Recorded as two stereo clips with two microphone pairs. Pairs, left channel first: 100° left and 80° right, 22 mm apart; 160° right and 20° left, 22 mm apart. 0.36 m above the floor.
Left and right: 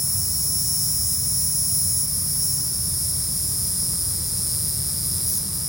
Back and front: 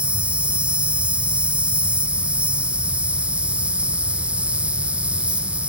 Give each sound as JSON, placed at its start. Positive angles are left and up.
{"t": 0.0, "sound": "an insect", "azimuth_deg": 5, "distance_m": 4.0}